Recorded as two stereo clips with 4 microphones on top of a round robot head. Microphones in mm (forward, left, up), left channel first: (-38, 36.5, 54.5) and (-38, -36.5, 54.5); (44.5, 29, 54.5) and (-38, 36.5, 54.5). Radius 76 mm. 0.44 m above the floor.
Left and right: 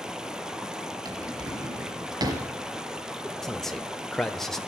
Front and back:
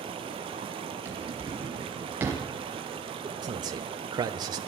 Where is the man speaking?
175° left, 1.4 m.